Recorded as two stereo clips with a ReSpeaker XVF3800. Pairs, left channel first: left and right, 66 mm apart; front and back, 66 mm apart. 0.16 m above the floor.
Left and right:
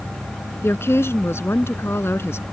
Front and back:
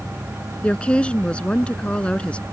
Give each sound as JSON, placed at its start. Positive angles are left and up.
{"t": 0.6, "sound": "a woman speaking", "azimuth_deg": 65}